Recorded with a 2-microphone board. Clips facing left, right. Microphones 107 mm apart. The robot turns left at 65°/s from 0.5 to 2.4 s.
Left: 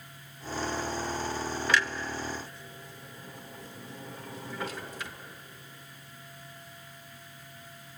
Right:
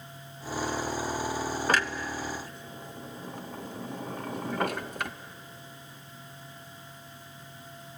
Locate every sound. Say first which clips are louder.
1.7 s a clunk: even; 40° right (ahead or behind), 0.7 m; by 5.1 s 60° right (ahead or behind), 0.7 m